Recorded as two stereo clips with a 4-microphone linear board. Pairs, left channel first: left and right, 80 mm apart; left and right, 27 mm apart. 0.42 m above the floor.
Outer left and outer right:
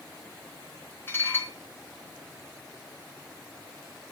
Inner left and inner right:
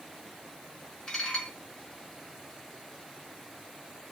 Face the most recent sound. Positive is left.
turn(degrees=30)  # may be behind; listen again after turning